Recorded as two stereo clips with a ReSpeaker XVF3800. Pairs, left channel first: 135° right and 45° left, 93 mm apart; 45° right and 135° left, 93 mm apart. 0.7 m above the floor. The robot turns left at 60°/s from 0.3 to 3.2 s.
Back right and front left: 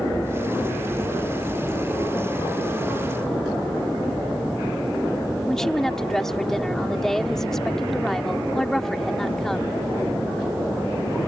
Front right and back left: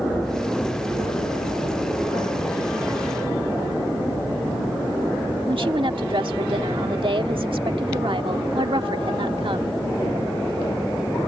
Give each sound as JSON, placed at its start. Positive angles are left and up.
{"t": 5.5, "sound": "a woman speaking", "azimuth_deg": 140}